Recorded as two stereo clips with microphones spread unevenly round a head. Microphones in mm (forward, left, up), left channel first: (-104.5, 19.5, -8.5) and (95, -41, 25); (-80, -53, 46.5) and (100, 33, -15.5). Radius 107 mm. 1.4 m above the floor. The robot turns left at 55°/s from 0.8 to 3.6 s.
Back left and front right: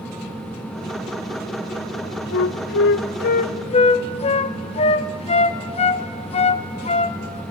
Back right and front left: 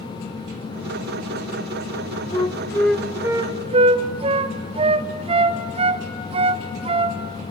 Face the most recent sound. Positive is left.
turn(degrees=100)